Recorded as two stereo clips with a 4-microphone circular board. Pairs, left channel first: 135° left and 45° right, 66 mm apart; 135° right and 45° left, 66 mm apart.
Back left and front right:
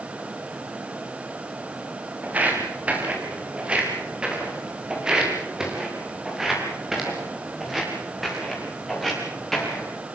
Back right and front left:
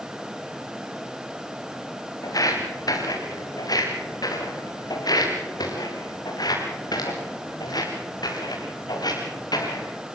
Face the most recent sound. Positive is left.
turn(degrees=-140)